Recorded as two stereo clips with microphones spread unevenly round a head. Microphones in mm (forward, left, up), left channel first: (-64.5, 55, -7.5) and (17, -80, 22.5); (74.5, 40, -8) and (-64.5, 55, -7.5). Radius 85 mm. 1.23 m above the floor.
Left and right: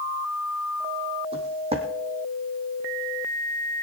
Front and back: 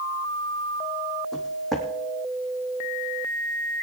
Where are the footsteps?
95° right, 2.5 m.